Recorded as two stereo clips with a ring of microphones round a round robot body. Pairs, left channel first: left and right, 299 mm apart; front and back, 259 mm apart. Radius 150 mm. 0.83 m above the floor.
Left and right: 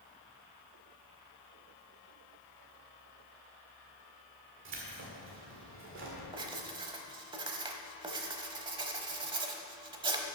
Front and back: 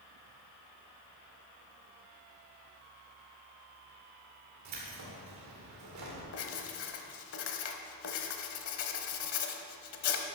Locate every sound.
4.7 s keys jangling: 140° right, 2.0 m
6.3 s writing: 20° right, 0.9 m